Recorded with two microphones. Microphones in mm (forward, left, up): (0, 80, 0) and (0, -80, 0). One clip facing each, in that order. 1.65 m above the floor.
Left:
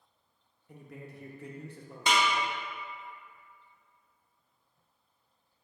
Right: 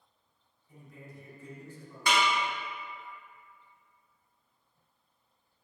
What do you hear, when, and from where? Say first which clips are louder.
0.7 s a man speaking: left 4 dB; 70° left (ahead or behind), 0.6 m
2.1 s a snare drum: even; 20° left (ahead or behind), 0.9 m